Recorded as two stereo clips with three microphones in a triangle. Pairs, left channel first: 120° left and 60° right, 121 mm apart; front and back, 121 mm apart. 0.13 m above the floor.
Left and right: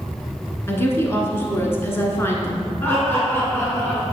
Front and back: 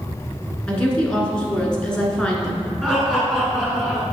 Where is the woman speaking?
75° left, 1.3 m.